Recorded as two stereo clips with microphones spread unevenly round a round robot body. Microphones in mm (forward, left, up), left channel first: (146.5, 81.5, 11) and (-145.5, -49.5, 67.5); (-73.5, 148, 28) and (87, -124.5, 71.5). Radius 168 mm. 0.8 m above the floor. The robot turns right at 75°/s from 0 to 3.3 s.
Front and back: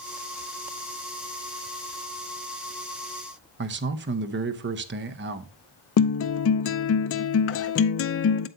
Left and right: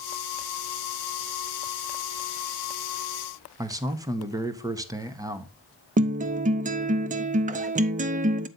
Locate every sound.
3.6 s a man speaking: 145° right, 0.7 m
6.0 s a guitar: 10° left, 0.6 m